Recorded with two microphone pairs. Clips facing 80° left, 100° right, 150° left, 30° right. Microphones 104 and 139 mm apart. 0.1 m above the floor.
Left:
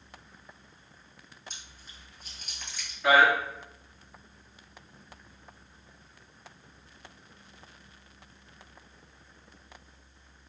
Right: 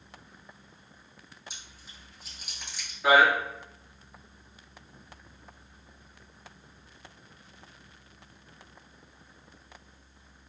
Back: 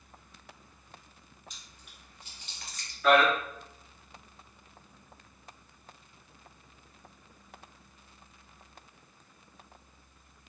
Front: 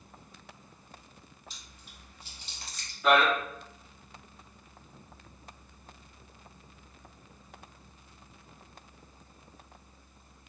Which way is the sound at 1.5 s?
30° right.